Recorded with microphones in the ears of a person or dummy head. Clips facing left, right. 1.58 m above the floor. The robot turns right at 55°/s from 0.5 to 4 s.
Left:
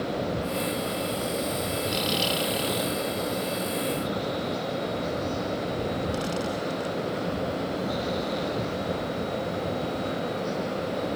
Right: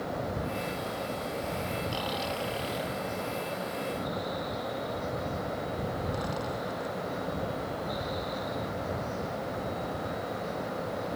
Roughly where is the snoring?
Left.